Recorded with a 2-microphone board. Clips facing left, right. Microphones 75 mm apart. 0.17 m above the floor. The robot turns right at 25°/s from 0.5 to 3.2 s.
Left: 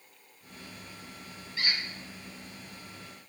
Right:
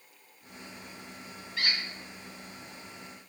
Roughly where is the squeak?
Right.